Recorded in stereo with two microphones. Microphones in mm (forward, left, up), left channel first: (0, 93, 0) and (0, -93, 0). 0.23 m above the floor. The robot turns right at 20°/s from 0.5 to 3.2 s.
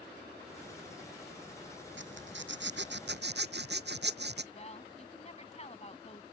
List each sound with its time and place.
2.0 s a zipper: 85° right; by 4.4 s 65° right (ahead or behind)
4.5 s a woman speaking: 35° left (ahead or behind)